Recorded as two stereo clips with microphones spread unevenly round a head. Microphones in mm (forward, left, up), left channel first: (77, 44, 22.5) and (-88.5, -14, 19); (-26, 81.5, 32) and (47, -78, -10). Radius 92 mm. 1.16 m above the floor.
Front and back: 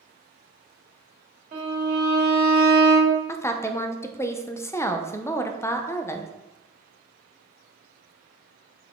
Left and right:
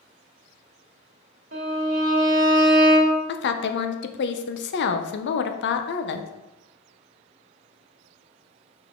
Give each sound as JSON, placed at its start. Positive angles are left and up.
{"t": 1.5, "sound": "a violin", "azimuth_deg": -110, "distance_m": 1.9}
{"t": 3.3, "sound": "a woman speaking", "azimuth_deg": 95, "distance_m": 0.7}